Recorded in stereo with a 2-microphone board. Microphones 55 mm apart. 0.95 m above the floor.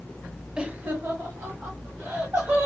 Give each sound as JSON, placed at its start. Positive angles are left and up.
{"t": 0.6, "sound": "laughter", "side_deg": -15, "distance_m": 0.7}